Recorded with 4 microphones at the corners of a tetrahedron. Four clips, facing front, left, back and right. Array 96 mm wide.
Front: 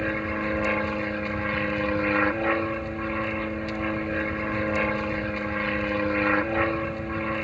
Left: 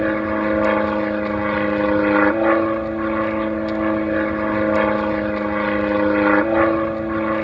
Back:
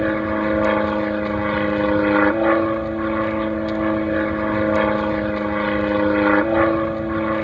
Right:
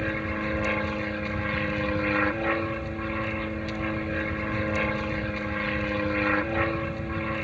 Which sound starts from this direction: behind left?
An aircraft, at 0.0 s.